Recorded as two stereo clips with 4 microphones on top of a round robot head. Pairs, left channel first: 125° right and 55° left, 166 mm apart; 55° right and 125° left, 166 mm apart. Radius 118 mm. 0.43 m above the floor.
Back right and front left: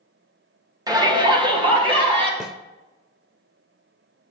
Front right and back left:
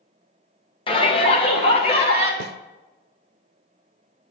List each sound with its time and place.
0.9 s a shout: 5° right, 1.6 m
2.4 s a snare drum: 140° left, 0.6 m